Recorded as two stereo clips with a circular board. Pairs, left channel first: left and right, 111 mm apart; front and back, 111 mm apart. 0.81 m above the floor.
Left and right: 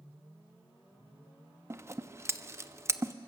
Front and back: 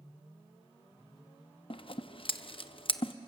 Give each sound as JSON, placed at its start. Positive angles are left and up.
{"t": 1.7, "sound": "scissors", "azimuth_deg": -30, "distance_m": 0.6}